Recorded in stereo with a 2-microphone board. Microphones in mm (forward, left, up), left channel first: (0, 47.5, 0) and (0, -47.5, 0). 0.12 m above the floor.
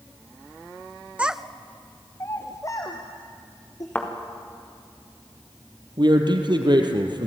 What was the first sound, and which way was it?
A child speaking, 15° right (ahead or behind).